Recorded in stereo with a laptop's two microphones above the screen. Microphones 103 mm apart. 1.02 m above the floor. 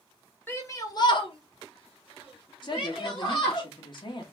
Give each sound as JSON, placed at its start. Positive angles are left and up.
{"t": 0.5, "sound": "a shout", "side_deg": 20, "distance_m": 1.1}
{"t": 2.6, "sound": "a woman speaking", "side_deg": 45, "distance_m": 1.5}